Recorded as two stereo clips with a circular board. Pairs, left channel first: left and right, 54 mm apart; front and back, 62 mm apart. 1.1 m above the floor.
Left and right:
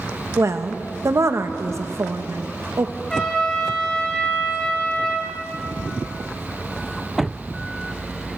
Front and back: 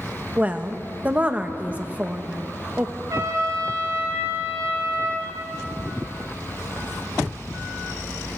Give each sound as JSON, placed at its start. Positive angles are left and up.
{"t": 0.4, "sound": "a woman speaking", "azimuth_deg": -115, "distance_m": 0.9}
{"t": 3.1, "sound": "a trumpet", "azimuth_deg": 165, "distance_m": 6.0}